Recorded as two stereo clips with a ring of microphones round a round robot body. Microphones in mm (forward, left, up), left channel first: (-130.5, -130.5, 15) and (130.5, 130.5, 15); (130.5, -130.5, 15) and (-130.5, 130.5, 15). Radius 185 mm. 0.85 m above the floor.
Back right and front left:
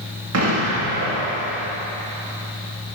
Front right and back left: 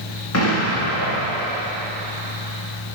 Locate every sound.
0.3 s an explosion: straight ahead, 1.8 m